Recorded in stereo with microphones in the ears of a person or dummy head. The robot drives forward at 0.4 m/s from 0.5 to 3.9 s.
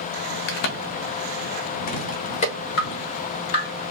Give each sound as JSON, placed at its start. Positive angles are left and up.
{"t": 0.5, "sound": "a crack", "side_deg": 45, "distance_m": 0.7}
{"t": 2.8, "sound": "dripping", "side_deg": 25, "distance_m": 1.3}